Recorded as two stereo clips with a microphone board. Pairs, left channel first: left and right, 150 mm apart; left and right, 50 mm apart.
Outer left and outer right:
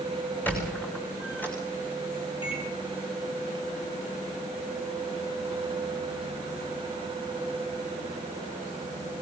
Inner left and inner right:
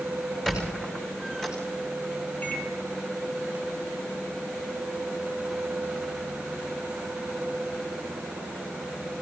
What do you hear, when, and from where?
0.5 s a squeak: 10° left (ahead or behind), 7 m
2.4 s a microwave: 35° left (ahead or behind), 3.5 m